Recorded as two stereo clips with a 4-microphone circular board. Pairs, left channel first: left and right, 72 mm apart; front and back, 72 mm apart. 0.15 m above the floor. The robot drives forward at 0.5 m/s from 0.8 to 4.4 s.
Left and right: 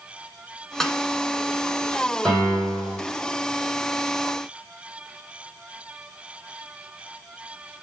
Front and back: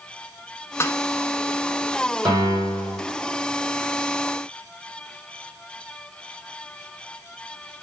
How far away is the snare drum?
About 1.2 m.